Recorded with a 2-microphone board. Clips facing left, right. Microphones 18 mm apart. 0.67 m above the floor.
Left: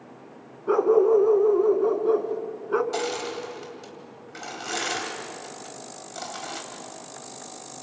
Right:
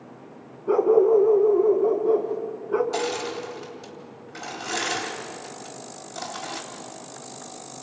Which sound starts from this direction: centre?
Crushing, at 2.9 s.